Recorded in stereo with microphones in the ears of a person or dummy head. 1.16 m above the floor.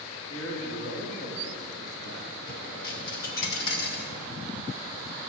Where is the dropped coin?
55° left (ahead or behind), 0.7 m.